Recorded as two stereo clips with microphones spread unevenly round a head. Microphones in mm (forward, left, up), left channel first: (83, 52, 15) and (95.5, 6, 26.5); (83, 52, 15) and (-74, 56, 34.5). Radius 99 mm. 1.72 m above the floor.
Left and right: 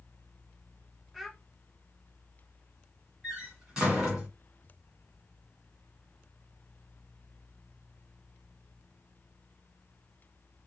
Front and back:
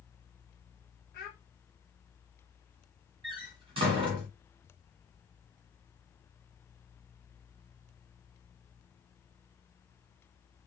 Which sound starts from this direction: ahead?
A child speaking, at 1.1 s.